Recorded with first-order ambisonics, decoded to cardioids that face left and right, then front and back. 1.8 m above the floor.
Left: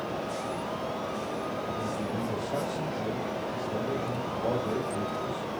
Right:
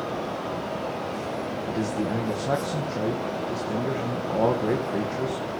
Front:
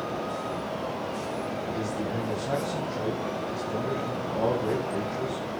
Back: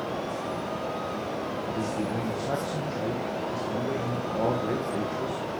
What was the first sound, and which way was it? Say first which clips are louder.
A man speaking: right 5 dB, back 1 dB; 95° right.